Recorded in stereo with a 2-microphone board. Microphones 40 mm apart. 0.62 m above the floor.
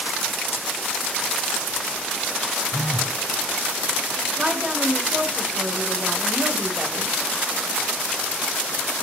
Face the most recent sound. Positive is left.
turn(degrees=-25)  # may be behind; listen again after turning